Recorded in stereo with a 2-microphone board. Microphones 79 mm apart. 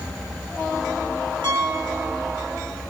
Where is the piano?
75° right (ahead or behind), 7 m.